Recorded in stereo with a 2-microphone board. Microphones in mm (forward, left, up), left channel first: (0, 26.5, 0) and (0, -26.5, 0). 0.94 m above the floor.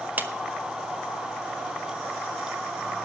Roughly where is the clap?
Right.